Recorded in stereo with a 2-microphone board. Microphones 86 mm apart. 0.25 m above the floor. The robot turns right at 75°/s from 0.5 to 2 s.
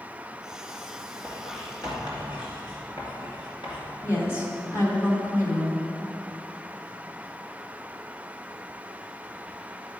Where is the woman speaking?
35° left (ahead or behind), 2 m.